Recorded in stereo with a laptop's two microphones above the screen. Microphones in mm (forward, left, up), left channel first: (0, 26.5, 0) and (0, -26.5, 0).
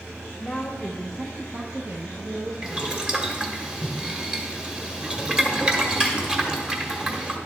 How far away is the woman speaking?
About 0.9 m.